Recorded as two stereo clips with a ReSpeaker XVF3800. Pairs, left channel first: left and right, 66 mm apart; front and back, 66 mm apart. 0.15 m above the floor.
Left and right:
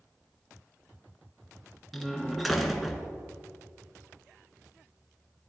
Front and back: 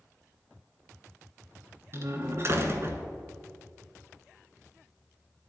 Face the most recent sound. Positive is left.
turn(degrees=180)